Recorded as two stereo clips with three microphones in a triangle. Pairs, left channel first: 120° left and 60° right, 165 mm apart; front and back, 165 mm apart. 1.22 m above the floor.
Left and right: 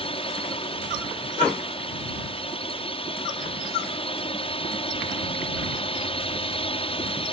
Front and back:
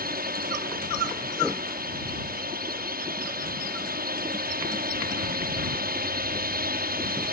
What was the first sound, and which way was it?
A drone, 170° left.